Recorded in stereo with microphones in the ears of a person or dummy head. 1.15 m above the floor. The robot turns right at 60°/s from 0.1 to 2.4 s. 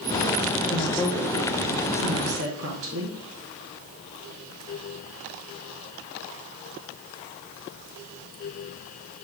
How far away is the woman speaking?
About 1.0 m.